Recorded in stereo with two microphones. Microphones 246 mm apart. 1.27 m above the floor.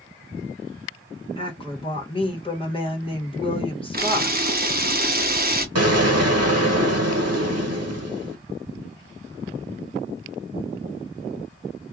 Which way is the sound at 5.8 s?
85° right.